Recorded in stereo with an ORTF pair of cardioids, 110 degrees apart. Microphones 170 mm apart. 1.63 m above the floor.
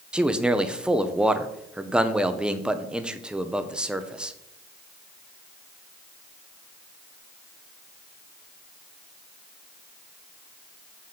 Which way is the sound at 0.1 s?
5° right.